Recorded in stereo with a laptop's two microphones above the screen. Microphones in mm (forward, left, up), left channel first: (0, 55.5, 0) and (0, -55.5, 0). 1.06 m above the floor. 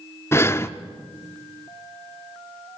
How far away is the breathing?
About 0.7 m.